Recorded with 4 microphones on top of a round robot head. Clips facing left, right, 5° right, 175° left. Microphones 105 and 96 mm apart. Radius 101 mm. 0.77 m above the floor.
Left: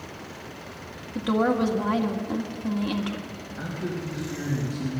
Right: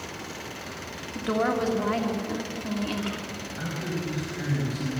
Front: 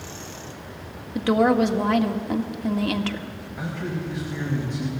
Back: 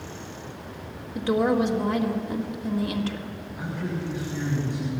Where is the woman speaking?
10° left, 1.8 m.